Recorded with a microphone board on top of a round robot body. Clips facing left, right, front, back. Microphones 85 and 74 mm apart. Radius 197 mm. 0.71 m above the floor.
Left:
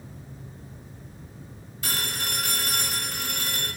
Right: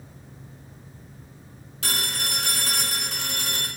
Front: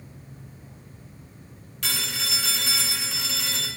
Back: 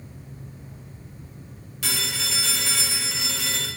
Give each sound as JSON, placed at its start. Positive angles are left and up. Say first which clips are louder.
{"t": 1.8, "sound": "a phone ringing", "louder": "right 1 dB, back 1 dB", "azimuth_deg": -100, "distance_m": 1.2}